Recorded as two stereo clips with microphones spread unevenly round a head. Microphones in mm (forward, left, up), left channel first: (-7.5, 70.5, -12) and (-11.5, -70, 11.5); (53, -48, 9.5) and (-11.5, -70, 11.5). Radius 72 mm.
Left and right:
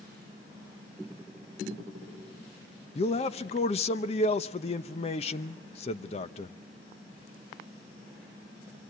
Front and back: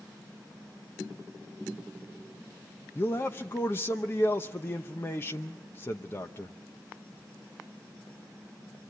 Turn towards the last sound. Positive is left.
turn(degrees=70)